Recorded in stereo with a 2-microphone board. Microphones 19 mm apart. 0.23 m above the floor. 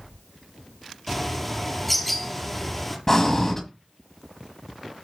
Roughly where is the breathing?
Left.